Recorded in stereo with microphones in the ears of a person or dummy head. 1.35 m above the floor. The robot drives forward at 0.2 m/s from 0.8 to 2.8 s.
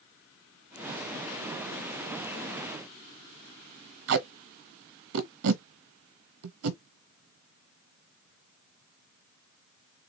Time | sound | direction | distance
4.1 | tape being pulled | 70° right (ahead or behind) | 0.8 m